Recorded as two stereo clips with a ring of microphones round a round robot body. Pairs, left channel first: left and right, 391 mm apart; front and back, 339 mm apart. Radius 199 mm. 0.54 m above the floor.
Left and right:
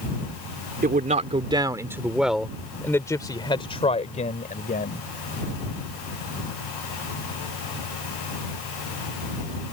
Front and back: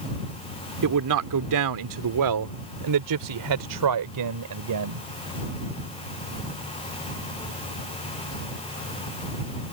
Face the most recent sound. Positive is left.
turn(degrees=155)